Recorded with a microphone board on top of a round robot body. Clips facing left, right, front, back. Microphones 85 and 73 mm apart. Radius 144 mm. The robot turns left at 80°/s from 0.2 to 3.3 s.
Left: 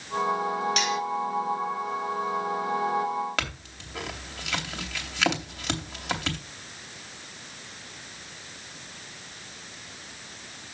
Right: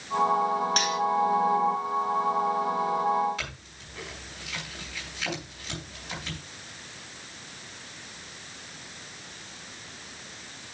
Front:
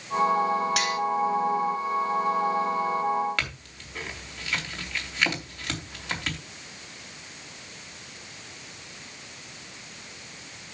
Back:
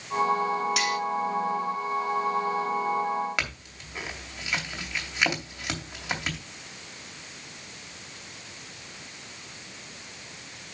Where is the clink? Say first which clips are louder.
Left 6 dB, even; 105° left, 3 m.